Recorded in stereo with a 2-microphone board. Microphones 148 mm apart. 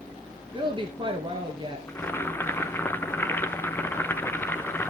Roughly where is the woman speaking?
Right.